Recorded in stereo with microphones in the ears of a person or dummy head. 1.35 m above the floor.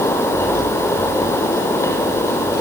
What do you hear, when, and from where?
Only background noise.